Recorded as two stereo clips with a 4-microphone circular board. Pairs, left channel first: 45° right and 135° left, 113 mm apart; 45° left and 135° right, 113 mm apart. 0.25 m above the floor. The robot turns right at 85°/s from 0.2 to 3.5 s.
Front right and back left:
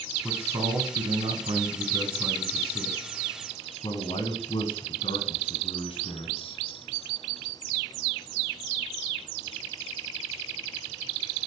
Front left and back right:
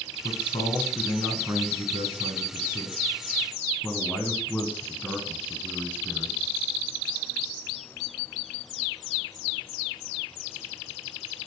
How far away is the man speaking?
About 1.9 m.